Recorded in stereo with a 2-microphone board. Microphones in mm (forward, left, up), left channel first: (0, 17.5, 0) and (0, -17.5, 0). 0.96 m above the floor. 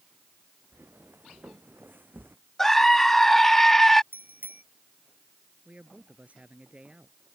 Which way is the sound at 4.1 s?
55° right (ahead or behind).